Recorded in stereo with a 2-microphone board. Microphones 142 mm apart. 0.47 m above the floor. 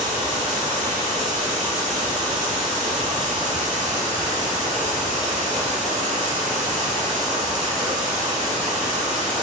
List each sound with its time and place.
0.0 s running water: 60° right (ahead or behind), 2.0 m